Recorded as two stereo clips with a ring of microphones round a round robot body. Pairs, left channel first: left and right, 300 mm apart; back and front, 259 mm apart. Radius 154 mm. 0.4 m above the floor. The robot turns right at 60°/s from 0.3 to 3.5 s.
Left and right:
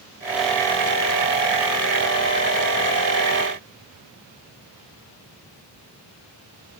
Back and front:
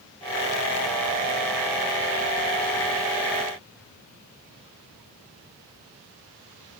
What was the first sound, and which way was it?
Only background noise.